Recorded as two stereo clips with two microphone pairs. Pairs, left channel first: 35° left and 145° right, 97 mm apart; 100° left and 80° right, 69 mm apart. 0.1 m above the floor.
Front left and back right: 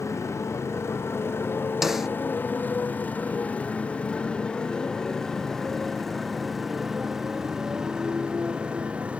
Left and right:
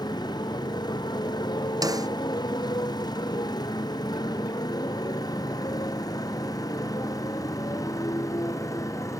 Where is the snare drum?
55° right.